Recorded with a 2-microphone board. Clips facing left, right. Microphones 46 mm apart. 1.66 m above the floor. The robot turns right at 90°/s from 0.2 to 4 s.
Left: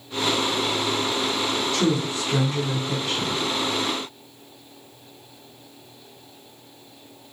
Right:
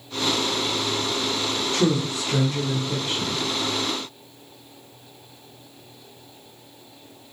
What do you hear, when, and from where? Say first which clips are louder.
1.7 s a woman speaking: right 3 dB; 50° right, 0.9 m; by 3.4 s 95° left, 0.9 m